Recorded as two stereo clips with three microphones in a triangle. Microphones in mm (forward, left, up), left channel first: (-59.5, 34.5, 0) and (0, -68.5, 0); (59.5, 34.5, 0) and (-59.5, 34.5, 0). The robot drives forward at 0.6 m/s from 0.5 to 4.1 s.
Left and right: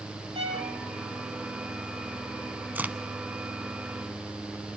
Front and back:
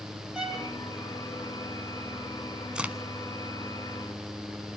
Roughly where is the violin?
Right.